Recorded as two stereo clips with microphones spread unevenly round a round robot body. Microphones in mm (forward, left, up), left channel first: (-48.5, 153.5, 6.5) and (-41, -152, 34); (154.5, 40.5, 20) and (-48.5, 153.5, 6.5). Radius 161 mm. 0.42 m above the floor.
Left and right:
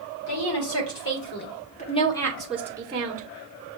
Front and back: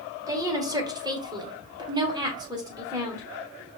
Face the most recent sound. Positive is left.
turn(degrees=-145)